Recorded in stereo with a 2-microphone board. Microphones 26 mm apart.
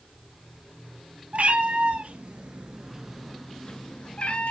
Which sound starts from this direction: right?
A cat meowing, at 1.3 s.